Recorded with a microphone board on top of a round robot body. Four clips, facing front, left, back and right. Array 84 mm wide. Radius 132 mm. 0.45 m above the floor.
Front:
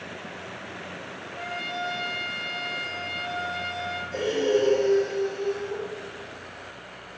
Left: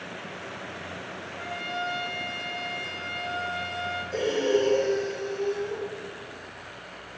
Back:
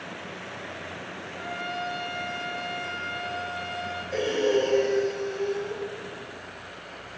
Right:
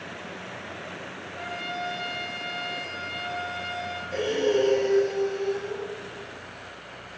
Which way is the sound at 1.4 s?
30° right.